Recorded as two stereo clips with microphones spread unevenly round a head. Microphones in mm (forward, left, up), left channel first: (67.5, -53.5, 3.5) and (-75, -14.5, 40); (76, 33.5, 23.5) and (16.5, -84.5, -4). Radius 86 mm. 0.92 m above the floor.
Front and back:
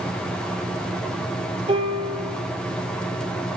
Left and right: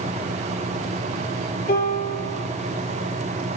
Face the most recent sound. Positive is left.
turn(degrees=105)